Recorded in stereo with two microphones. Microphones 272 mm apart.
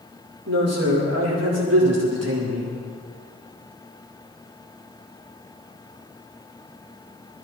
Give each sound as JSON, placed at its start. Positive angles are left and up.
{"t": 0.5, "sound": "a man speaking", "side_deg": -65, "distance_m": 4.5}